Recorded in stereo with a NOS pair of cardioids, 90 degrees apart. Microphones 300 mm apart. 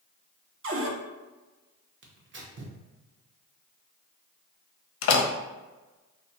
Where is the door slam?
50° left, 0.5 m.